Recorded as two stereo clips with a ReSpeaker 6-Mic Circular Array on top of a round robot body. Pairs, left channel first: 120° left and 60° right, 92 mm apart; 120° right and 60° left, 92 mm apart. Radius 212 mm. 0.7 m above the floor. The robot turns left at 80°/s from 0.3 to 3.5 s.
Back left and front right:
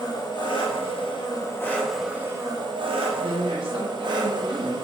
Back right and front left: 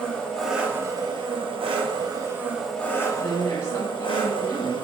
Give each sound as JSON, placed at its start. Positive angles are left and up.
{"t": 0.0, "sound": "an engine running", "azimuth_deg": 160, "distance_m": 1.1}
{"t": 3.2, "sound": "a woman speaking", "azimuth_deg": -35, "distance_m": 1.8}